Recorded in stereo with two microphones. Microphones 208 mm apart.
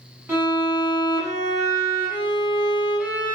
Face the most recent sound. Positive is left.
turn(degrees=-10)  # may be behind; listen again after turning